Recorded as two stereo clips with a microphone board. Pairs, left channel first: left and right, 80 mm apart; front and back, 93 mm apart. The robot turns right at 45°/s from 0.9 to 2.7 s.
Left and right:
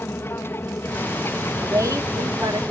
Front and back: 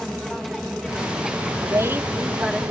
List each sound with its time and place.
0.0 s an aircraft: 85° left; by 2.7 s 170° left
1.6 s a woman speaking: 135° right; by 2.7 s 85° right